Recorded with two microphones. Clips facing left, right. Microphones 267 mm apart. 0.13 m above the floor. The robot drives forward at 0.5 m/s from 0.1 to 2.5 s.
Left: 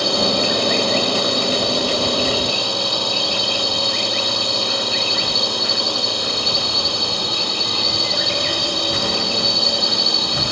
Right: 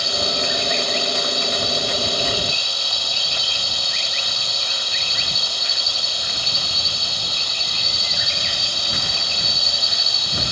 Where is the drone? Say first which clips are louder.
Left 7 dB; 70° left (ahead or behind).